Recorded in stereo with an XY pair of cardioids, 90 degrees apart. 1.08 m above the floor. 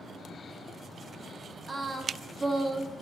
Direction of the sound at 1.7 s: 25° right.